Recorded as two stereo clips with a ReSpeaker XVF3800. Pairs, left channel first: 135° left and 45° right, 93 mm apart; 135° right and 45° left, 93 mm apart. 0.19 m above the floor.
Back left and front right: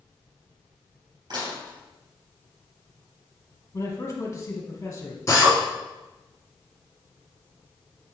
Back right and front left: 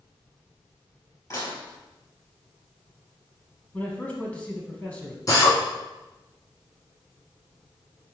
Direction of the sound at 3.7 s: 160° left.